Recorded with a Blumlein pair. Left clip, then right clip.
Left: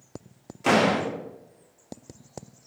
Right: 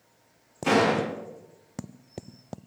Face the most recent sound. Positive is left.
turn(degrees=65)